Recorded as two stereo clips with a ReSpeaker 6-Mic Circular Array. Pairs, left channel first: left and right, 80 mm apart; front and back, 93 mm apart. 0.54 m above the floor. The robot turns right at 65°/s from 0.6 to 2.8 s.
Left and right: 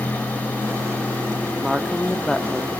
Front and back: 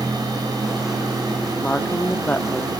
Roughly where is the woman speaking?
Ahead right.